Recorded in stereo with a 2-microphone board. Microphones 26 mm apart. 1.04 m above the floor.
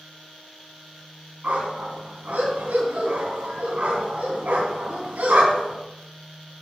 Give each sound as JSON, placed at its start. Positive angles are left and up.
{"t": 1.4, "sound": "a dog barking", "side_deg": -75, "distance_m": 3.0}